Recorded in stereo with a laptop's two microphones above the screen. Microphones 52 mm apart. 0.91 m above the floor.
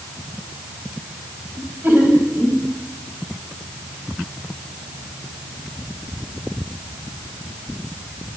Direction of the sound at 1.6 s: 35° right (ahead or behind).